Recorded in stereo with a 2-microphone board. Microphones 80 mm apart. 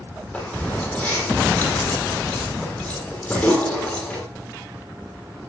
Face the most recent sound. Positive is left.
turn(degrees=15)  # may be behind; listen again after turning